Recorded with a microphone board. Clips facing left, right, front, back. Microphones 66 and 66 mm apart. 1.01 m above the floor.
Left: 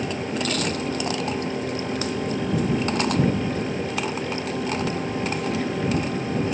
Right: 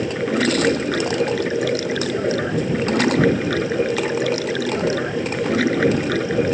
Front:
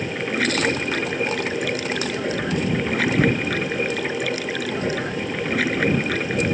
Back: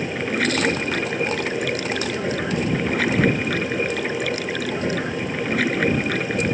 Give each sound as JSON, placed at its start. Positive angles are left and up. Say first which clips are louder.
{"t": 0.0, "sound": "running water", "louder": "right 7 dB, back 1 dB", "azimuth_deg": -90}